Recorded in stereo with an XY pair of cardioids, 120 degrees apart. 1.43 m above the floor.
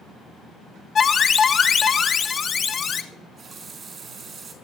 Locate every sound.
0.9 s an alarm: 35° left, 1.4 m
3.1 s a running tap: 45° right, 4 m